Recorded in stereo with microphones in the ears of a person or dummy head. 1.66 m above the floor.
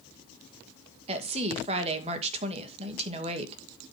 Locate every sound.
1.1 s a woman speaking: 35° right (ahead or behind), 2 m